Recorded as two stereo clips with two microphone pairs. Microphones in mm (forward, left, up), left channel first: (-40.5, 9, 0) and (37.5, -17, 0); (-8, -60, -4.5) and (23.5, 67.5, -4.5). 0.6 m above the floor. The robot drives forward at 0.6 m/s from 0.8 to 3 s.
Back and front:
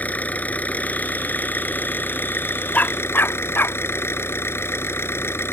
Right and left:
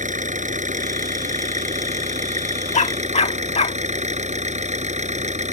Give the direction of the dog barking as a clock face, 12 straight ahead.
4 o'clock.